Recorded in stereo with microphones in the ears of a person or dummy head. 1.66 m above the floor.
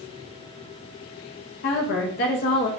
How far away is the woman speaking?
About 0.7 m.